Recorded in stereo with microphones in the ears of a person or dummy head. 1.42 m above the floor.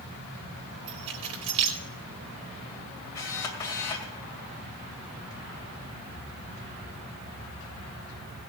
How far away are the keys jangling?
About 2 m.